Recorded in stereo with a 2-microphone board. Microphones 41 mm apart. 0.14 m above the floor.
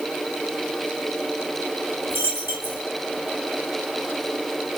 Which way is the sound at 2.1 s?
65° right (ahead or behind).